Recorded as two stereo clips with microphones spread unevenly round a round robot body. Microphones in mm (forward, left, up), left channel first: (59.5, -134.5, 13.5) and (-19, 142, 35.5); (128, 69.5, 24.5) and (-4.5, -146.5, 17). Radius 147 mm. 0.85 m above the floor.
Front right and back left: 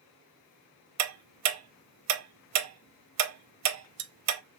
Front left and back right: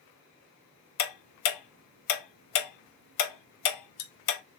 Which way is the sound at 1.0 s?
65° left.